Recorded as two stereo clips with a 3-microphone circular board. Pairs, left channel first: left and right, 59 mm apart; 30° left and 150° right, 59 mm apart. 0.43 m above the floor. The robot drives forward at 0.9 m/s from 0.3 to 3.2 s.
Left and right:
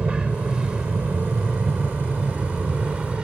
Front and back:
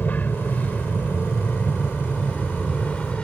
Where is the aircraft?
20° right; by 3.2 s 30° right.